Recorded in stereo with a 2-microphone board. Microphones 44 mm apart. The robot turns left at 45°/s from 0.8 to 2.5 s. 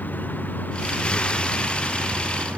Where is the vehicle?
40° left; by 2.6 s 35° right.